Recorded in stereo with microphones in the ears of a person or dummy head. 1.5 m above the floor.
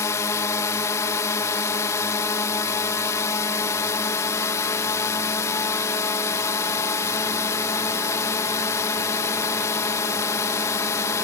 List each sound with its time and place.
0.0 s a drone: 20° left (ahead or behind)